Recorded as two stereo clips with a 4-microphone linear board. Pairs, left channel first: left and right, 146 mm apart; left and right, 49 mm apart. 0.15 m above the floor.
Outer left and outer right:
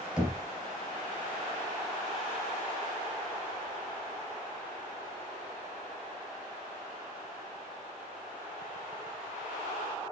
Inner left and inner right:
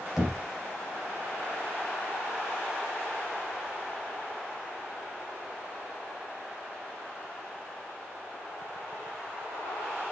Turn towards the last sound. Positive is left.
turn(degrees=-5)  # may be behind; listen again after turning